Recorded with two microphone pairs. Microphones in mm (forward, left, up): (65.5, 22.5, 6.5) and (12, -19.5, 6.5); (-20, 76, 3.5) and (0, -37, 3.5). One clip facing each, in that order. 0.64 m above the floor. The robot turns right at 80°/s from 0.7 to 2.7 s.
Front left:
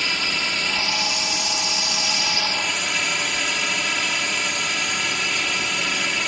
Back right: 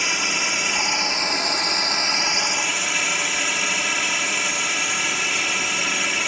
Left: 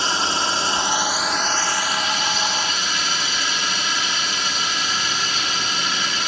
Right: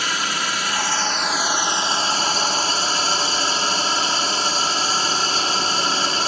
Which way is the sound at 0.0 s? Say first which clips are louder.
Back right 1 dB, left 3 dB; 145° left.